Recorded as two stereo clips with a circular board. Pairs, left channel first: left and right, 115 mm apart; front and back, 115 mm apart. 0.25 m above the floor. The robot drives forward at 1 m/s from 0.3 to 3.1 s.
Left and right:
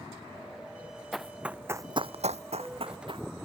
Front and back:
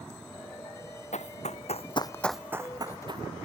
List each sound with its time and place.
1.1 s running footsteps: straight ahead; by 3.3 s 130° right